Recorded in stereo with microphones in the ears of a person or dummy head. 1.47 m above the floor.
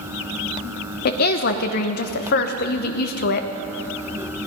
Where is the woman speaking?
45° left (ahead or behind), 0.9 m.